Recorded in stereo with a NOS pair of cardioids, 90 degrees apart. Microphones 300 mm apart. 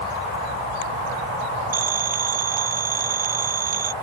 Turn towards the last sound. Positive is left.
turn(degrees=-30)